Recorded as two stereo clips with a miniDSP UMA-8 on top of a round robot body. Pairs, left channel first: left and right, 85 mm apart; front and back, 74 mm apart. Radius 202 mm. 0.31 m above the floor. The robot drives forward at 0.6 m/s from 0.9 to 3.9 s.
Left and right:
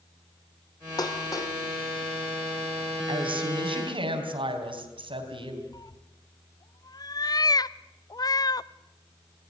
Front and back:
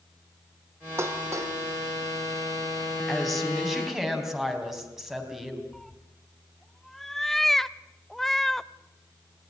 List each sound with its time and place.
1.0 s dishes clattering: 130° left, 1.4 m; by 1.6 s 140° left, 1.7 m
3.1 s a woman speaking: 85° right, 4 m; by 5.6 s 95° right, 4 m
5.7 s a cat meowing: 85° left, 0.7 m